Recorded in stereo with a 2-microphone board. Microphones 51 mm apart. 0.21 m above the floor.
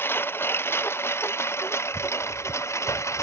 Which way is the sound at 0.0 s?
45° left (ahead or behind).